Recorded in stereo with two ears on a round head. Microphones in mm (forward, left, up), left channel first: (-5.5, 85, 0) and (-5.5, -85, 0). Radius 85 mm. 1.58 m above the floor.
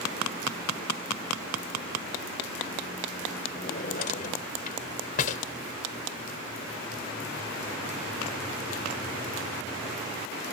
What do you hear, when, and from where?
3.5 s a drawer: 45° left (ahead or behind)